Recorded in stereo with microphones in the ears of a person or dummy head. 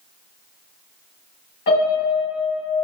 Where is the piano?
40° left (ahead or behind), 1.6 m.